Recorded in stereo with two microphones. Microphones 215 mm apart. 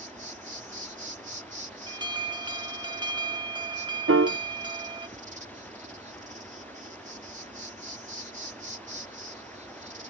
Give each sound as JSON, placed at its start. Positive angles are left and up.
{"t": 0.0, "sound": "an insect", "side_deg": -35}
{"t": 1.9, "sound": "an alarm", "side_deg": -20}
{"t": 4.1, "sound": "a piano", "side_deg": -80}